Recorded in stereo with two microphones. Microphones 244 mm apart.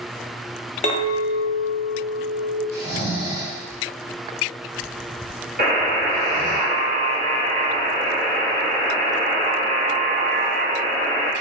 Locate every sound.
0.8 s a clink: 25° left (ahead or behind), 0.6 m
2.7 s snoring: 80° right, 1.5 m
5.6 s a buzzer: 40° right (ahead or behind), 1.2 m